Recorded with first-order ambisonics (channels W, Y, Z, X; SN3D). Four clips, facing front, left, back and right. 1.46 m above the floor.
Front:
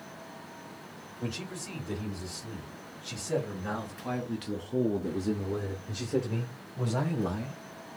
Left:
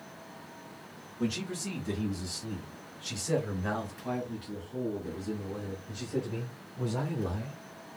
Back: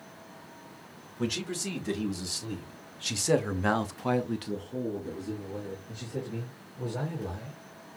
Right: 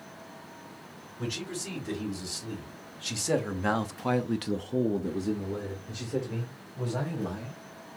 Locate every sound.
1.2 s a man speaking: 170° right, 2.5 m; by 7.6 s 15° right, 2.5 m